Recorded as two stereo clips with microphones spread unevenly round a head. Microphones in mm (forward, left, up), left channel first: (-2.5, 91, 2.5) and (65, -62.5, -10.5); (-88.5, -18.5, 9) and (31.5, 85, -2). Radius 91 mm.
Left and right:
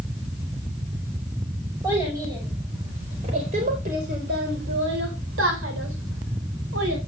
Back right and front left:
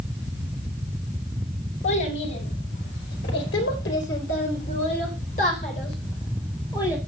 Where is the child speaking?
145° right, 6 m; by 7.0 s 65° right, 5.5 m.